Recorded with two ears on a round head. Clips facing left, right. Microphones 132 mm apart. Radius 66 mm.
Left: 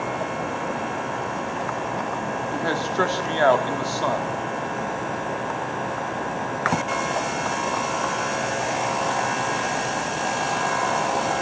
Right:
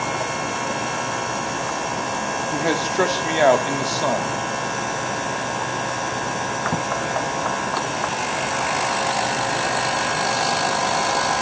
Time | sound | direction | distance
2.5 | a man speaking | 20° right (ahead or behind) | 1.6 m